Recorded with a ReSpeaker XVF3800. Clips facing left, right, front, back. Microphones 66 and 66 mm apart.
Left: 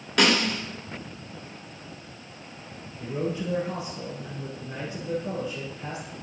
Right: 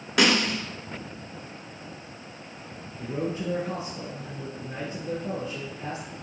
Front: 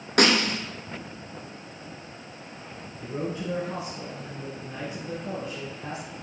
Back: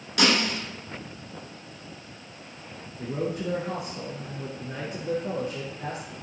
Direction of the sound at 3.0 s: 150° right.